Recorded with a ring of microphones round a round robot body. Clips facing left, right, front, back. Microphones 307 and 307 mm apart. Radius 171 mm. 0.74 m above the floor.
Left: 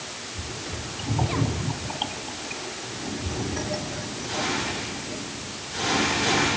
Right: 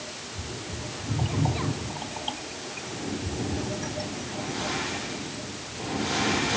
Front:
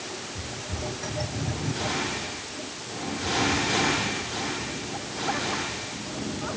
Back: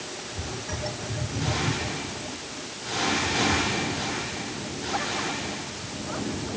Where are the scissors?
I don't hear scissors.